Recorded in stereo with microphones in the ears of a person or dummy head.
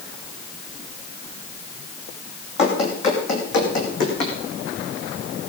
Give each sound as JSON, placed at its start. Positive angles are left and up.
{"t": 2.6, "sound": "running footsteps", "side_deg": 35, "distance_m": 4.0}